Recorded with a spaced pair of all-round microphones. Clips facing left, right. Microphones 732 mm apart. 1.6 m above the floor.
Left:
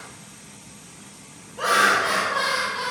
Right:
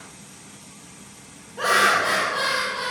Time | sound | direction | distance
1.6 | laughter | 30° right (ahead or behind) | 0.6 m